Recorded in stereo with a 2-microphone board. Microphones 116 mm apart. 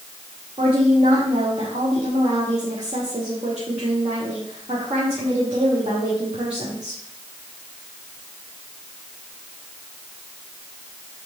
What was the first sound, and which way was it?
A woman speaking, 60° right (ahead or behind).